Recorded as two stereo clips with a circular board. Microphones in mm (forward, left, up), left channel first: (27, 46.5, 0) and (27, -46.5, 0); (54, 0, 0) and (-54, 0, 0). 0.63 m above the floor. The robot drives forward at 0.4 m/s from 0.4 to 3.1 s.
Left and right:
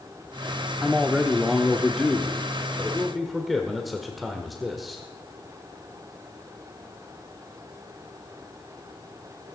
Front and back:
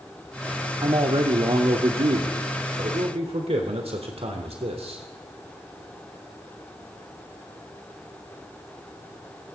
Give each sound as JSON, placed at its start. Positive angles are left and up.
{"t": 0.8, "sound": "a man speaking", "azimuth_deg": 180, "distance_m": 1.1}